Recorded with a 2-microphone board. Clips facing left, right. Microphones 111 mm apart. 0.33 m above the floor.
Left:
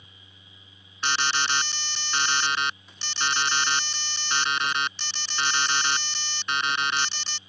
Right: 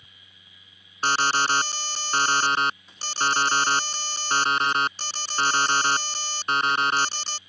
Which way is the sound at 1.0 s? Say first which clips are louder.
Right 4 dB; 40° right (ahead or behind).